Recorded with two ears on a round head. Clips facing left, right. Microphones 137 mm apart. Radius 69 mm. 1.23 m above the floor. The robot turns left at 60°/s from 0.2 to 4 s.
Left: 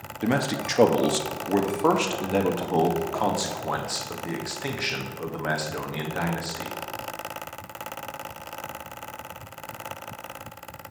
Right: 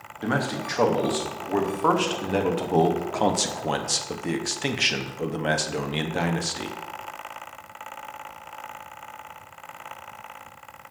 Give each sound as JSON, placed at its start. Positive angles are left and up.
{"t": 0.2, "sound": "a man speaking", "side_deg": 20, "distance_m": 0.6}